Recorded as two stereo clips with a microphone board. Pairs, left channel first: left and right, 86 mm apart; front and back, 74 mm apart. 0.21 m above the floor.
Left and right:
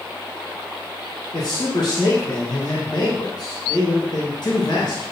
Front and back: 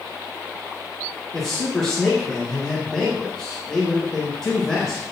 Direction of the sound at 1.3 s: 85° left.